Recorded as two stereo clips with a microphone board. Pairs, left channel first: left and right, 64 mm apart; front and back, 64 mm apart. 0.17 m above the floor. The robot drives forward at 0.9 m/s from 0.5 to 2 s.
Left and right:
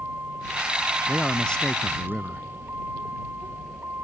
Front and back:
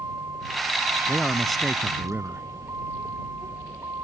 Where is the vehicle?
150° right; by 4.0 s 145° right.